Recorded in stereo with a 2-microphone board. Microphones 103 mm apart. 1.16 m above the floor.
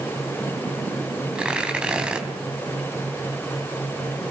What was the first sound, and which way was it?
Tearing paper, 10° right (ahead or behind).